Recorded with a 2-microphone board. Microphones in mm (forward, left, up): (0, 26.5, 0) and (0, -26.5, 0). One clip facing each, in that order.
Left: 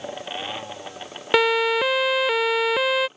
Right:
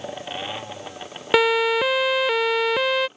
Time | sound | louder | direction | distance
1.3 | a siren | right 1 dB | centre (ahead or behind) | ?